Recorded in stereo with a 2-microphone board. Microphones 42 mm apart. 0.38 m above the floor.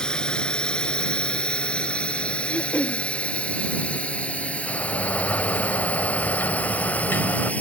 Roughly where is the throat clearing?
Left.